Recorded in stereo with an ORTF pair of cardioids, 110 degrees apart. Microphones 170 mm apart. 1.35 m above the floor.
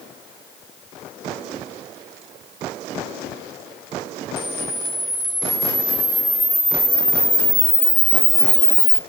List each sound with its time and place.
4.4 s a camera shutter: straight ahead, 0.7 m